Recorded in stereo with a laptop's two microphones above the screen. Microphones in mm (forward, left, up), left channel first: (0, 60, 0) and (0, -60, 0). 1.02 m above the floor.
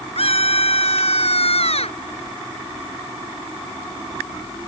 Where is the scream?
60° left (ahead or behind); by 2.0 s 65° left (ahead or behind).